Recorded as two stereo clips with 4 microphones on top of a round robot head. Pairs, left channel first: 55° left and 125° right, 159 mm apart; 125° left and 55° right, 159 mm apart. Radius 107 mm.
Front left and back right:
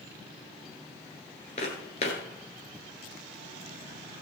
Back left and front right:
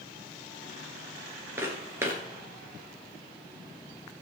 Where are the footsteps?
15° left, 1.5 m.